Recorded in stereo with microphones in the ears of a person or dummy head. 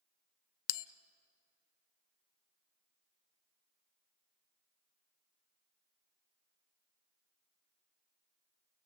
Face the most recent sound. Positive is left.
turn(degrees=70)  # may be behind; listen again after turning